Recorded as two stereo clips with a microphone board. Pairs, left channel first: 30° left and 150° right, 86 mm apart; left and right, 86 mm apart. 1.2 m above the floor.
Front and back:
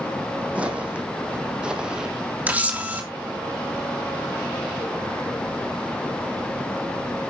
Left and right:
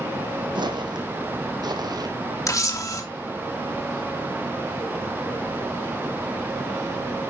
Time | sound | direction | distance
0.6 | footsteps | 75° right | 3 m
2.5 | a camera shutter | 140° left | 2.5 m